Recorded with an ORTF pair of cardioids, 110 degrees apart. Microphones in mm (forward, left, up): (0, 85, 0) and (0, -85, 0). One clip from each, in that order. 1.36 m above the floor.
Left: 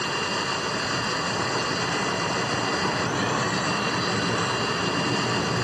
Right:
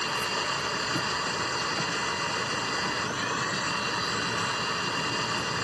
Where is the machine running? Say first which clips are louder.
Left 2 dB; 10° left.